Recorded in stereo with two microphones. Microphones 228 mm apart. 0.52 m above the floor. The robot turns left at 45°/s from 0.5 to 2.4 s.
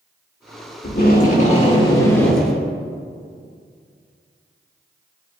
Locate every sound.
0.8 s tape being pulled: 70° left, 1.2 m; by 2.6 s straight ahead, 1.2 m